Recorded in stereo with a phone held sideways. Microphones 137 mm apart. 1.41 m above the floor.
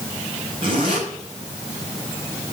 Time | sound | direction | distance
0.6 | a zipper | 40° right (ahead or behind) | 3.5 m